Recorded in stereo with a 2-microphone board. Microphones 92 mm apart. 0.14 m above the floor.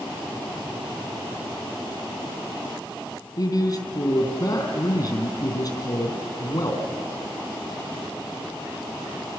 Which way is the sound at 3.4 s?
45° left (ahead or behind).